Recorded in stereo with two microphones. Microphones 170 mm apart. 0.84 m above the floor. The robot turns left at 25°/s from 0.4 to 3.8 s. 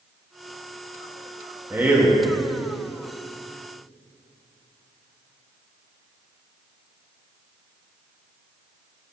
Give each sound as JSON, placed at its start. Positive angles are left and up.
{"t": 1.7, "sound": "a man speaking", "side_deg": -15, "distance_m": 1.4}